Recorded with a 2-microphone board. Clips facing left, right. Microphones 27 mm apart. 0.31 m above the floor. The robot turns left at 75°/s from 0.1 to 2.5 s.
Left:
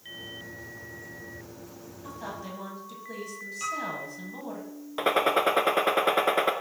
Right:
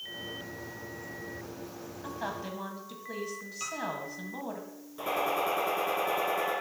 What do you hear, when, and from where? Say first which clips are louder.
2.0 s a woman speaking: right 2 dB; 130° right, 1.9 m; by 4.6 s 165° right, 1.9 m
3.6 s a piano: left 4 dB; 10° right (ahead or behind), 1.8 m
5.0 s a gunshot: left 6 dB; 70° left (ahead or behind), 0.8 m